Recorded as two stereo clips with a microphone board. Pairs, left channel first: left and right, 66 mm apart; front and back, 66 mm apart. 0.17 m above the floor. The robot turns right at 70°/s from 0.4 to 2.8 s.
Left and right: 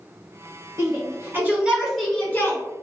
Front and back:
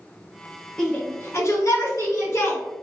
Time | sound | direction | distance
0.8 | a shout | 75° right | 1.7 m